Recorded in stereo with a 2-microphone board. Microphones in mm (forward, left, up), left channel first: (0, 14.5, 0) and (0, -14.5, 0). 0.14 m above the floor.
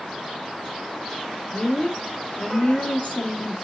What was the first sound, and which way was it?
A woman speaking, 40° left (ahead or behind).